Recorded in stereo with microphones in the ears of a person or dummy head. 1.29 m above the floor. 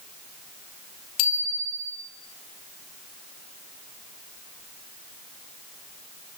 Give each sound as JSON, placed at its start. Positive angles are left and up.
{"t": 1.2, "sound": "a bicycle bell", "side_deg": 85, "distance_m": 6.0}